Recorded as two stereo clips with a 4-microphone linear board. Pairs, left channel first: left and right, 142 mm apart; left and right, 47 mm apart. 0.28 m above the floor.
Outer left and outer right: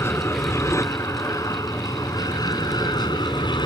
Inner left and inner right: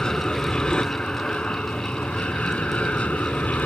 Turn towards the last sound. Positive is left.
turn(degrees=30)  # may be behind; listen again after turning